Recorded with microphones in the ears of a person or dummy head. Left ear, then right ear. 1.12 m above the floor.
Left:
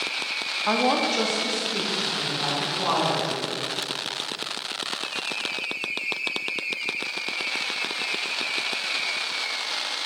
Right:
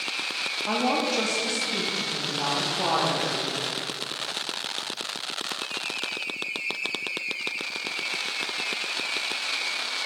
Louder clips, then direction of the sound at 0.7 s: Left 4 dB; 25° left (ahead or behind).